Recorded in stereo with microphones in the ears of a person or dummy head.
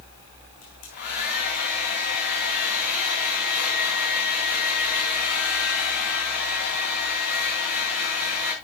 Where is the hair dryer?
50° left (ahead or behind), 4 m.